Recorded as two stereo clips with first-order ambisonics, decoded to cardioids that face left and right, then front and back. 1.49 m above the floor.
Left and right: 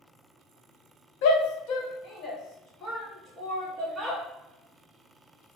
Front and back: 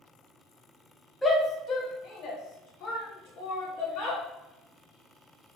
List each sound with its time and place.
1.2 s a shout: 80° left, 0.8 m; by 4.2 s 5° left, 1.9 m